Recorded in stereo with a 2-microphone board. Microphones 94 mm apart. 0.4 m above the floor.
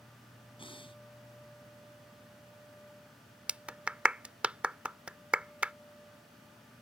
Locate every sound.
0.6 s breathing: 70° left (ahead or behind)
3.5 s a clap: 15° right (ahead or behind)